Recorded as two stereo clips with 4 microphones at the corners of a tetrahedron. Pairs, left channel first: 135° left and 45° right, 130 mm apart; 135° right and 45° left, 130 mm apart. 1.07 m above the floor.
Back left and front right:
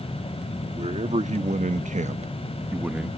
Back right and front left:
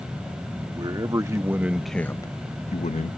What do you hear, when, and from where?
0.8 s a man speaking: 10° right; by 3.2 s 135° right